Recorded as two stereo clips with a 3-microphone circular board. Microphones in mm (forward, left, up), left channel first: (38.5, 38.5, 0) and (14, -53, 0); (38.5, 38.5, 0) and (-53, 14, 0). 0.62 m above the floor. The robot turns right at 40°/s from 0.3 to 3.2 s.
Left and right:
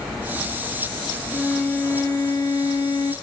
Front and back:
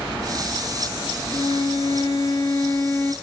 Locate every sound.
1.3 s a violin: straight ahead, 0.9 m; by 3.1 s 75° left, 0.9 m